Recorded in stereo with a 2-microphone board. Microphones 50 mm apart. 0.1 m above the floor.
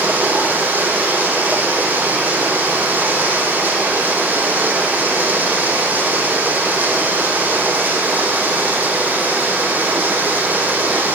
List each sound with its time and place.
0.0 s running water: 30° right (ahead or behind), 4 m